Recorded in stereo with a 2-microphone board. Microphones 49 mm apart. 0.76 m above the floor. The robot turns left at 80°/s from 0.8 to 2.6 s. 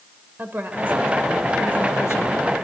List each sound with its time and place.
0.4 s a woman speaking: 140° right, 2.5 m; by 2.5 s 85° left, 2.5 m